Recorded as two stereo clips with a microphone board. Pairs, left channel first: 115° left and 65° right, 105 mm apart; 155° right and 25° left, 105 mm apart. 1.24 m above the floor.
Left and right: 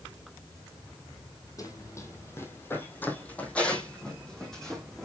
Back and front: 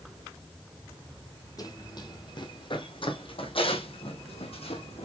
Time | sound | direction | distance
1.6 | running footsteps | 160° left | 1.9 m